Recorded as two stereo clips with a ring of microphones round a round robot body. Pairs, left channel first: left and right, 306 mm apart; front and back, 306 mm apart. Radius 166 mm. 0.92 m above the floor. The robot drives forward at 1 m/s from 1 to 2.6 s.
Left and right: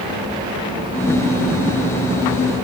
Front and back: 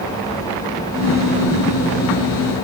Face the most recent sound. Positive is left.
No sound to turn to.